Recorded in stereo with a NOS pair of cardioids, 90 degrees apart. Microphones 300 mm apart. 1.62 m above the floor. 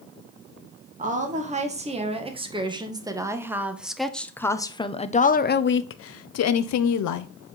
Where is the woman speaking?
25° right, 3 m; by 7.3 s 80° left, 1.4 m.